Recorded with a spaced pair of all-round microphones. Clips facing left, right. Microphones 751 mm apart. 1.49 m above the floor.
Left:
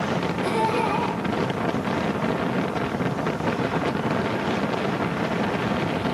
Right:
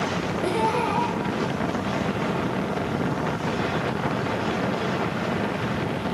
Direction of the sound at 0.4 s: 30° left (ahead or behind).